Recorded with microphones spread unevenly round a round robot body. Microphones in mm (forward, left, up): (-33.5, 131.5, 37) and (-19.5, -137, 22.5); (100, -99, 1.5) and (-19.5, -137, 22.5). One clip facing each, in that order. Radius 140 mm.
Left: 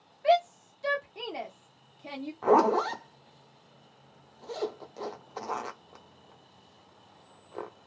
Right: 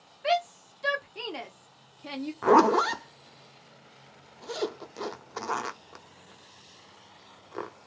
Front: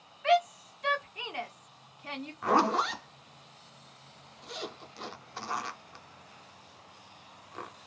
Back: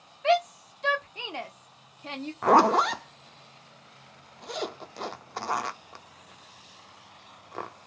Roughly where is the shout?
Behind right.